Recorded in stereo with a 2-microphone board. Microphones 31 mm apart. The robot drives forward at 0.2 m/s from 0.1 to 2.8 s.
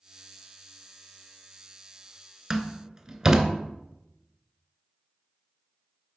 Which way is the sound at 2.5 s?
15° right (ahead or behind).